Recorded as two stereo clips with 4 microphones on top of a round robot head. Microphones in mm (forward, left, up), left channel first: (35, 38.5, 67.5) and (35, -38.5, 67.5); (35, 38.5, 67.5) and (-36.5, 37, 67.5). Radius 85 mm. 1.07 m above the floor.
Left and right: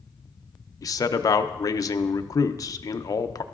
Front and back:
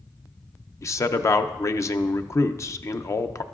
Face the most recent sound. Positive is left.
turn(degrees=50)